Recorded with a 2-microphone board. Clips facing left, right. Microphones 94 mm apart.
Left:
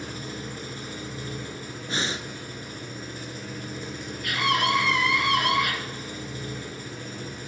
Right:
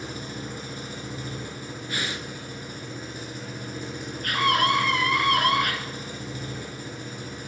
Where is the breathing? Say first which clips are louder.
Left 3 dB; 25° left (ahead or behind), 0.5 m.